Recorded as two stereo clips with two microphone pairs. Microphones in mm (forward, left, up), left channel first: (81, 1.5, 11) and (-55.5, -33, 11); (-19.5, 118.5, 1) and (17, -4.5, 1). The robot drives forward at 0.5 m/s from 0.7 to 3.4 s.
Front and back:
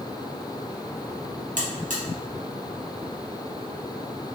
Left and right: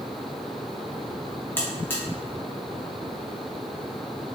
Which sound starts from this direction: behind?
A buzzer, at 1.6 s.